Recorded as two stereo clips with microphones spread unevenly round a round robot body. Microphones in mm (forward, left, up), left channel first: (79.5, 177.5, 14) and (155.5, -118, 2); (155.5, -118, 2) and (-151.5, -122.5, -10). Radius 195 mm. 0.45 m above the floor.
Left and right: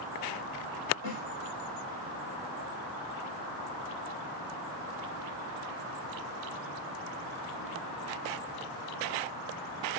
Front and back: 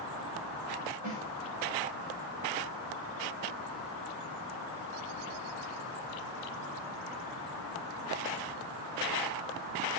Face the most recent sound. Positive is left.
turn(degrees=120)